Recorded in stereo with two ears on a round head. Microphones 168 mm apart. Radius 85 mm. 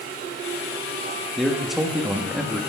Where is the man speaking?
Centre (ahead or behind), 1.2 m.